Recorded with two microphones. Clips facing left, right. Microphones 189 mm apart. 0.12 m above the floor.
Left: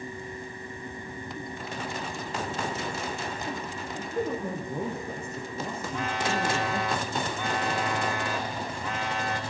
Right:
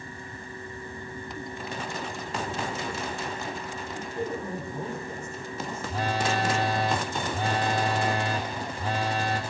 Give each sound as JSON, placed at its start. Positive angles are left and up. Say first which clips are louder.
{"t": 4.0, "sound": "a man speaking", "louder": "left 3 dB", "side_deg": 60, "distance_m": 8.5}
{"t": 5.9, "sound": "a phone buzzing", "louder": "right 3 dB", "side_deg": -35, "distance_m": 4.5}